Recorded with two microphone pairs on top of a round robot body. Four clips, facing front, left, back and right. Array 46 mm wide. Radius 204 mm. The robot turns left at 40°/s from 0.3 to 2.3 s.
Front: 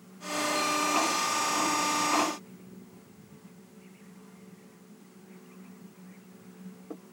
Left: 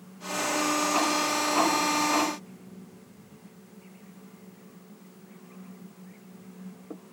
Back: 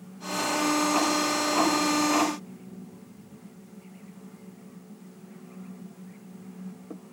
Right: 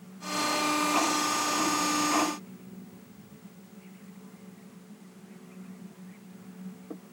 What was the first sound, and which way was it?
Only background noise.